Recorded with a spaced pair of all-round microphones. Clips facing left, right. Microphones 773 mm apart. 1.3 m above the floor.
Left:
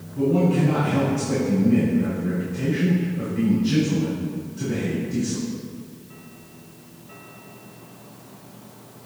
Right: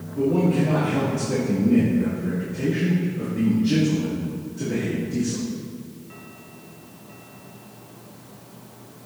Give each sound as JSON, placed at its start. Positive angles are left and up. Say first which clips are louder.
{"t": 0.1, "sound": "a man speaking", "louder": "even", "side_deg": 30, "distance_m": 2.5}